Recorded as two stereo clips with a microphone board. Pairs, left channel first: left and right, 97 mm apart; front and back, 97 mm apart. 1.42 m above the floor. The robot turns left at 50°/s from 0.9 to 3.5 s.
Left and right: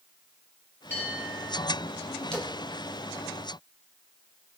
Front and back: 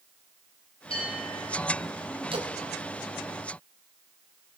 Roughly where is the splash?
Behind.